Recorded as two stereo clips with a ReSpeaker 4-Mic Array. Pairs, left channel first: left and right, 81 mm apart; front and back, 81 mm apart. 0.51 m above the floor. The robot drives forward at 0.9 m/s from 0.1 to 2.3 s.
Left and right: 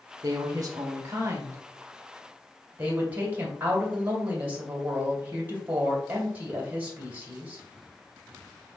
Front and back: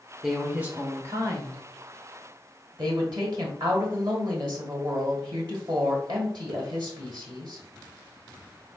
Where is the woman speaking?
90° right, 1.0 m; by 7.6 s 155° right, 2 m.